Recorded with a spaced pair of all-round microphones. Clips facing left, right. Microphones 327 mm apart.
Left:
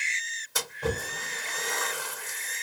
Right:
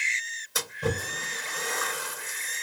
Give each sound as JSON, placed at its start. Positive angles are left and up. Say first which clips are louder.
{"t": 0.6, "sound": "a splash", "louder": "right 1 dB", "side_deg": 0, "distance_m": 3.5}